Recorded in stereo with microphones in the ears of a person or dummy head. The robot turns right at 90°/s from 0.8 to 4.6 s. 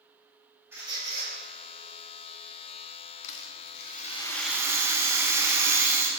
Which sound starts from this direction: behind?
A squeak, at 0.7 s.